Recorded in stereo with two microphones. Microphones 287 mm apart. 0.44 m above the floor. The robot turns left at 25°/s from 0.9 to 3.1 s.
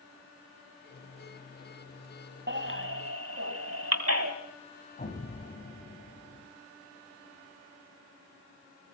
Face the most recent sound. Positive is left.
turn(degrees=30)  # may be behind; listen again after turning